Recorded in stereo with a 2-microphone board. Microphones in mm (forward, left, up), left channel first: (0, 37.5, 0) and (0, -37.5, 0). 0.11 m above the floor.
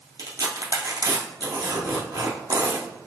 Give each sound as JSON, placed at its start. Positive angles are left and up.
{"t": 0.2, "sound": "tearing paper", "side_deg": -55, "distance_m": 2.0}